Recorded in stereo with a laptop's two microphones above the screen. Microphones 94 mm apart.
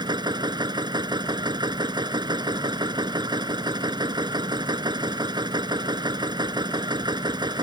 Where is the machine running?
50° right (ahead or behind).